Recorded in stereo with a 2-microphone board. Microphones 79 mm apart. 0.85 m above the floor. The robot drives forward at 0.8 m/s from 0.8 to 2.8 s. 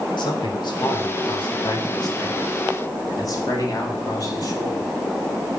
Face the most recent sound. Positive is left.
turn(degrees=55)  # may be behind; listen again after turning